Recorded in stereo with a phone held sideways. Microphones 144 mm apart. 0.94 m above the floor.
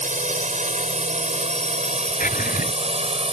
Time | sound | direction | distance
0.0 | a drone | 60° right (ahead or behind) | ?
2.2 | a drawer | 80° left | ?